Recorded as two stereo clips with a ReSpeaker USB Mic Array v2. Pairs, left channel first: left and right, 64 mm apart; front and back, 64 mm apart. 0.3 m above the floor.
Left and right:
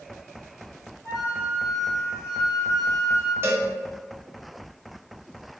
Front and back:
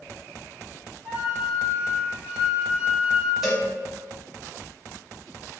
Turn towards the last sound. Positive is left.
turn(degrees=-95)